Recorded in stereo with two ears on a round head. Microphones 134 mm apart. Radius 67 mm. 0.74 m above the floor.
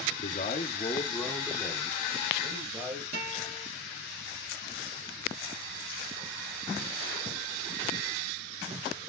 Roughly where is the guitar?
Right.